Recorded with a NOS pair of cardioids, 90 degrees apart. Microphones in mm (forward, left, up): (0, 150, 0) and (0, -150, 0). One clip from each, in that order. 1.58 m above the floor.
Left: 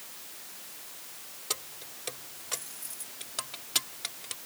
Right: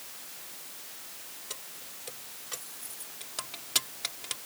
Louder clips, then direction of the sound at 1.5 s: Left 8 dB; 60° left.